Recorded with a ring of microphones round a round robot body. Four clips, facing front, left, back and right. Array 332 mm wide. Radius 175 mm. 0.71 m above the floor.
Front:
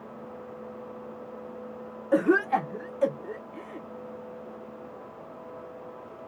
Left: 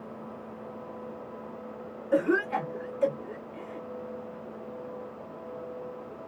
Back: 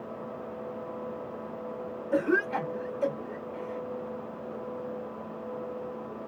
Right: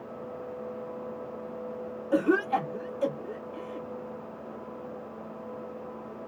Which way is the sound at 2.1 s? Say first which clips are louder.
Right 1 dB, front 4 dB; 15° right.